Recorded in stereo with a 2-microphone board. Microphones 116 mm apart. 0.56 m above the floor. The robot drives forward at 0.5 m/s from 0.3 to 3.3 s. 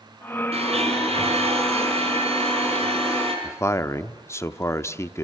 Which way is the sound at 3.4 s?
25° left (ahead or behind).